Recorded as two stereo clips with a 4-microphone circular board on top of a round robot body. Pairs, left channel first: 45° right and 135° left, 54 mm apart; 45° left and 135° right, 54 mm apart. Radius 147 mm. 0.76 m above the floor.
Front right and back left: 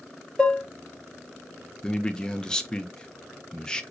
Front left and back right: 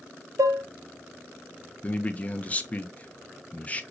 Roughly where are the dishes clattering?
Behind right.